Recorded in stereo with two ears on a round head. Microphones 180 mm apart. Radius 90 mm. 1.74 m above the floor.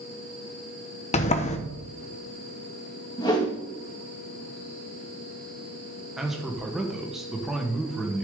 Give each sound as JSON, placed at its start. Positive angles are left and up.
{"t": 1.1, "sound": "a sliding door", "side_deg": 35, "distance_m": 1.0}
{"t": 3.2, "sound": "a whoosh", "side_deg": 20, "distance_m": 2.0}
{"t": 6.2, "sound": "a man speaking", "side_deg": 0, "distance_m": 1.4}